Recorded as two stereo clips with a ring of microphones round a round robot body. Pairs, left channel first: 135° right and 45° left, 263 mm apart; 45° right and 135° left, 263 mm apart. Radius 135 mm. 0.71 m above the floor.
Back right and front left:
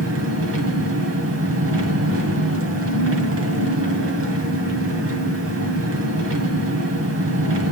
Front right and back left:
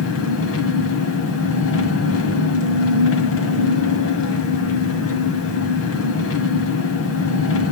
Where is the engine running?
Straight ahead, 1.7 m.